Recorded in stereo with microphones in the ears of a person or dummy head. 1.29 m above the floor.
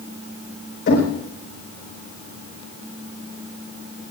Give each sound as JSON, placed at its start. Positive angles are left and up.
{"t": 0.9, "sound": "knocking", "side_deg": 60, "distance_m": 5.0}